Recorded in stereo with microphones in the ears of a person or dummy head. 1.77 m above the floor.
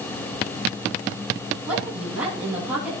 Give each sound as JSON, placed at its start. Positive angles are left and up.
{"t": 1.7, "sound": "a woman speaking", "side_deg": -5, "distance_m": 2.5}